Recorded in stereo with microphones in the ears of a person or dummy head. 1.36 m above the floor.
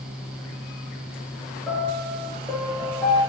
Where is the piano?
5° left (ahead or behind), 3 m.